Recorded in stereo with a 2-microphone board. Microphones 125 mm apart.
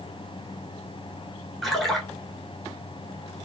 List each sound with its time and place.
1.6 s a splash: centre (ahead or behind), 1.1 m